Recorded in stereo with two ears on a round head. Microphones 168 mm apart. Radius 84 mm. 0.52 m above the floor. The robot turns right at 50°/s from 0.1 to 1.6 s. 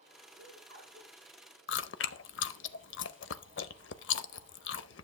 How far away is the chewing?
About 0.6 m.